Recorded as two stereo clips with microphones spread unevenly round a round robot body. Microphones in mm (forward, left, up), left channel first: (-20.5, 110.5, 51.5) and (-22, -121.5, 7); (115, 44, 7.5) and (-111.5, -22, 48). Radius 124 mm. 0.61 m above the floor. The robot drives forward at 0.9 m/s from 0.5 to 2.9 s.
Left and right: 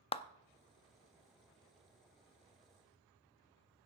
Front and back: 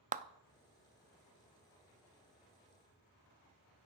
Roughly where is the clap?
Behind left.